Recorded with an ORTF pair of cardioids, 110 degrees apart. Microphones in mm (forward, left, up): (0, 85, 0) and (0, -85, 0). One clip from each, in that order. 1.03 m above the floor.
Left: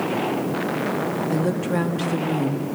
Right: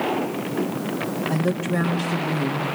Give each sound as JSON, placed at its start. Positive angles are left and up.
{"t": 1.3, "sound": "a woman speaking", "azimuth_deg": 10, "distance_m": 1.8}